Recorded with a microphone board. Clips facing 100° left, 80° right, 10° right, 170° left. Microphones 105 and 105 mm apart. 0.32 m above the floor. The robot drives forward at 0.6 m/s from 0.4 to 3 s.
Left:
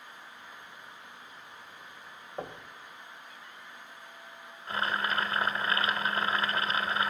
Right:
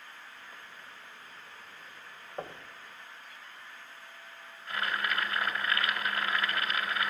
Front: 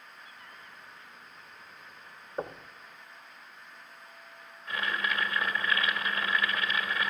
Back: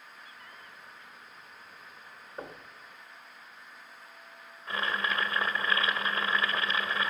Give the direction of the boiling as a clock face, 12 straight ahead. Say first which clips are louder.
Left 2 dB, back 1 dB; 8 o'clock.